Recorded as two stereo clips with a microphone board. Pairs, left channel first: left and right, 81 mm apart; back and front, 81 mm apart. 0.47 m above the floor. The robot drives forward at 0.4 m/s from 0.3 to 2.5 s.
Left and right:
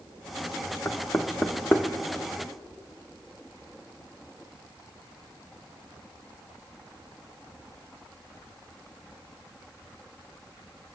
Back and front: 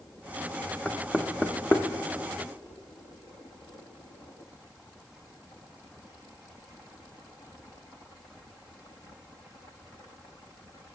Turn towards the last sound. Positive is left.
turn(degrees=155)